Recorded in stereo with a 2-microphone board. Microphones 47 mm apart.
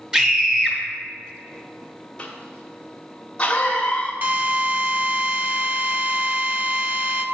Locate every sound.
0.1 s a scream: 15° right (ahead or behind), 1.5 m
2.2 s a cough: 20° left (ahead or behind), 1.4 m
4.2 s a drill: 40° right (ahead or behind), 0.8 m